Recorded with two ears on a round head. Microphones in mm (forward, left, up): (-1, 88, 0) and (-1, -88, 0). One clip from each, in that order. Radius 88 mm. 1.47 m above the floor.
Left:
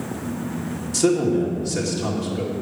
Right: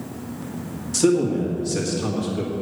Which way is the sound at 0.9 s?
10° right (ahead or behind).